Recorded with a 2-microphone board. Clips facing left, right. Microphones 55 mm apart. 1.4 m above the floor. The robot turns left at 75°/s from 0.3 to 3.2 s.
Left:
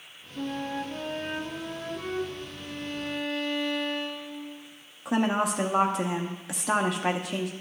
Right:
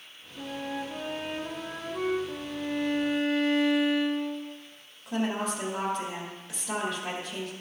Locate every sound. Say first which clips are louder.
0.4 s a flute: left 3 dB; 30° left, 1.2 m; by 2.2 s 105° right, 1.2 m
2.3 s a violin: right 5 dB; 100° right, 0.7 m; by 4.5 s 170° right, 0.7 m
5.0 s a woman speaking: left 4 dB; 80° left, 0.7 m